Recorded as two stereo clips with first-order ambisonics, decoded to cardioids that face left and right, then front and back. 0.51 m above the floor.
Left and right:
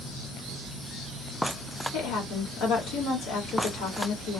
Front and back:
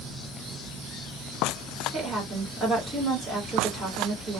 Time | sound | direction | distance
1.9 | a woman speaking | 100° left | 1.8 m